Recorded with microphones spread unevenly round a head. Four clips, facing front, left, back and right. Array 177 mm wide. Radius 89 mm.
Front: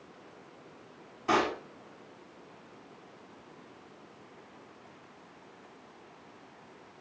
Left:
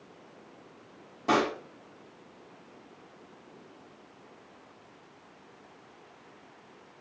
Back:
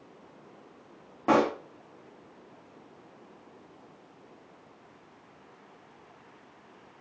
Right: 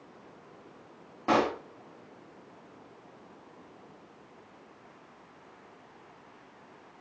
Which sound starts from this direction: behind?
A pop, at 1.3 s.